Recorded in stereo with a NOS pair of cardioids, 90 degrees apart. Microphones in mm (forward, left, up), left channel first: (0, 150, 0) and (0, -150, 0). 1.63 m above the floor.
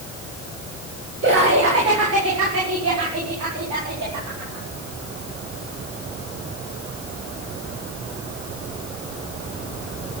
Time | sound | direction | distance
1.2 | laughter | 45° right | 4.5 m